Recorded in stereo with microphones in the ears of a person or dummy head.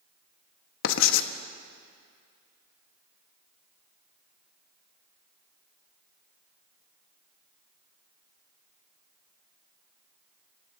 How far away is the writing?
About 1.1 m.